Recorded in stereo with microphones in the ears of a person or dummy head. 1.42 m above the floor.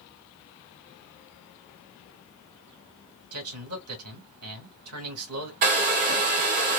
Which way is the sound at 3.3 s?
80° right.